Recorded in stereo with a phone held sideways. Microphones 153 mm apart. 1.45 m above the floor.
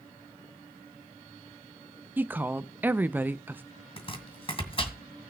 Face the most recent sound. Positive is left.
turn(degrees=40)  # may be behind; listen again after turning